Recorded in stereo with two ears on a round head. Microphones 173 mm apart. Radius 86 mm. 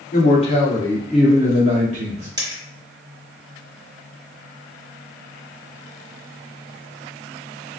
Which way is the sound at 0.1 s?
45° left (ahead or behind).